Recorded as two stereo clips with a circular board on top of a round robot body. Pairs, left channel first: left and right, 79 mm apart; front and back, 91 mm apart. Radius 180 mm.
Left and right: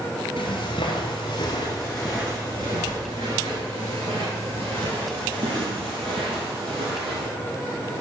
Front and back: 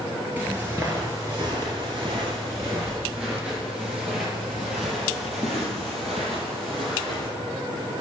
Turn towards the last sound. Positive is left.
turn(degrees=-90)